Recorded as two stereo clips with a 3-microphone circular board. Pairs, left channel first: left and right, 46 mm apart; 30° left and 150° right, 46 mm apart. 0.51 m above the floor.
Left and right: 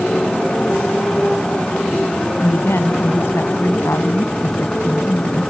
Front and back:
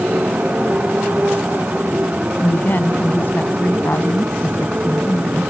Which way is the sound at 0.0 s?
160° left.